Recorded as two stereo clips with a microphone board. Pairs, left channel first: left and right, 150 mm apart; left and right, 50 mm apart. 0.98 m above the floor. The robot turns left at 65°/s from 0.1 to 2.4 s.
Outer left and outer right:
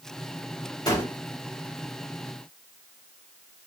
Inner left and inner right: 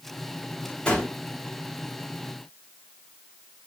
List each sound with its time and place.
0.9 s a gunshot: 25° left (ahead or behind), 2 m; by 1.1 s 10° left (ahead or behind), 2 m